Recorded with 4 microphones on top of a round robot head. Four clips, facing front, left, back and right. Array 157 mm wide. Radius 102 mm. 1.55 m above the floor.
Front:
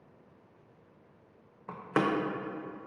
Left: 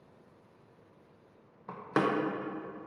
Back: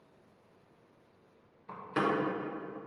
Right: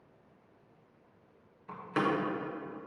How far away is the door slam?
About 0.5 m.